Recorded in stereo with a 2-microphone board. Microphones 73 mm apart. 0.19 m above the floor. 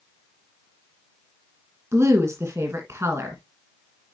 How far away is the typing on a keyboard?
No typing on a keyboard in this recording.